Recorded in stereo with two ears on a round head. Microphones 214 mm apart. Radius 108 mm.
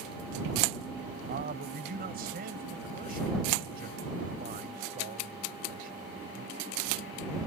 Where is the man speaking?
40° right (ahead or behind).